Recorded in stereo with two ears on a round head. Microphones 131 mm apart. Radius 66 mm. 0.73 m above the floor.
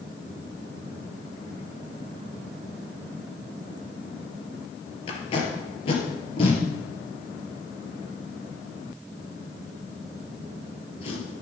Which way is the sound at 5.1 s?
35° left (ahead or behind).